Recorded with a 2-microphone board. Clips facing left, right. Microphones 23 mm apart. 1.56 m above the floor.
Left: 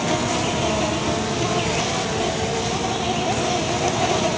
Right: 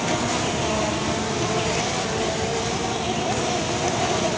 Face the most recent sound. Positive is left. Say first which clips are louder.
# left 2 dB
turn(degrees=10)  # may be behind; listen again after turning